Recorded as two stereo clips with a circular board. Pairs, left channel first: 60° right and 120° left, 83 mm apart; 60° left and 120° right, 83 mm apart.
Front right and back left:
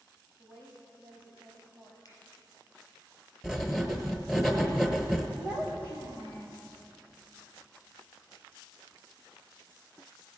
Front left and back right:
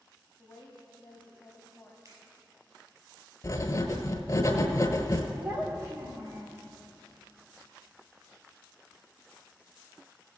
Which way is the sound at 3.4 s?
35° left.